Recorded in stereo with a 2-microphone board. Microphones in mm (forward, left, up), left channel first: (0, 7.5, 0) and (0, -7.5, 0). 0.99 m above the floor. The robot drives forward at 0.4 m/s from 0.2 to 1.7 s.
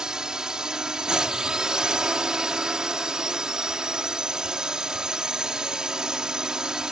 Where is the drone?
55° right (ahead or behind); by 6.9 s 60° right (ahead or behind).